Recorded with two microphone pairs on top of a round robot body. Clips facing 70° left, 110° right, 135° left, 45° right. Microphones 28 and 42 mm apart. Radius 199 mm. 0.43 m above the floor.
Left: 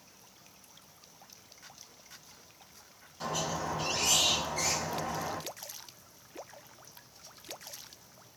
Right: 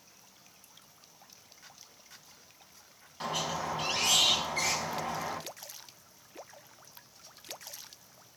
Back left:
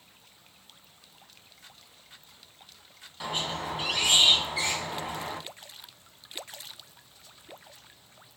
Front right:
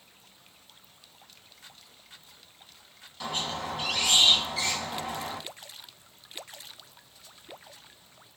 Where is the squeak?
150° right, 1.6 m.